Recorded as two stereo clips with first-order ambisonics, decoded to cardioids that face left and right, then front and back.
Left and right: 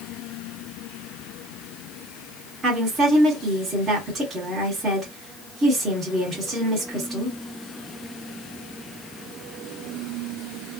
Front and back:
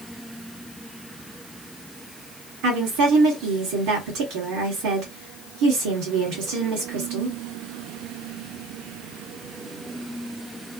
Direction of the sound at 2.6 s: 160° right.